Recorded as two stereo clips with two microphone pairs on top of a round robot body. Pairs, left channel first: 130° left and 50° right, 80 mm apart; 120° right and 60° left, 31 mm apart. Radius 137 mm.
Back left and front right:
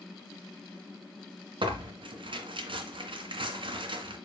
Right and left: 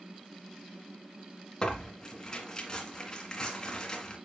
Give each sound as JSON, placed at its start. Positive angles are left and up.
{"t": 1.6, "sound": "tearing paper", "azimuth_deg": -45, "distance_m": 2.0}